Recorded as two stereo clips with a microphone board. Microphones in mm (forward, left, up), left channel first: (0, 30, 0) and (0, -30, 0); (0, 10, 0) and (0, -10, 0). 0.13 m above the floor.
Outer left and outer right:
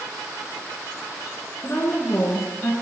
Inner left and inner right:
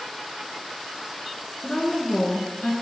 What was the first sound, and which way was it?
A woman speaking, 40° left (ahead or behind).